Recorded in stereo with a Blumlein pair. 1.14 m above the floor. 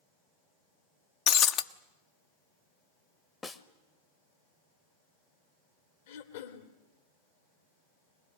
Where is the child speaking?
No child speaking in this recording.